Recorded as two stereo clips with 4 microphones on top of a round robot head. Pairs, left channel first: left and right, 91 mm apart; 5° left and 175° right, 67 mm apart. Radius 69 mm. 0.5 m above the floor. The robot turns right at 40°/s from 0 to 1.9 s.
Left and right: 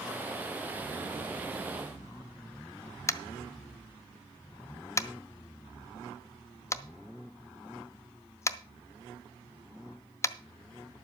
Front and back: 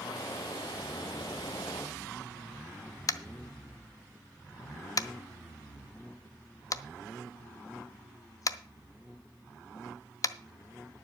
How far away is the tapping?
About 0.7 m.